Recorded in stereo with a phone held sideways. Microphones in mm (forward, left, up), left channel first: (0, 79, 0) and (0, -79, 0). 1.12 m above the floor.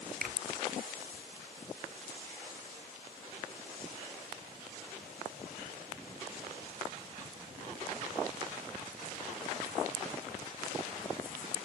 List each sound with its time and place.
0.2 s a finger snap: 80° right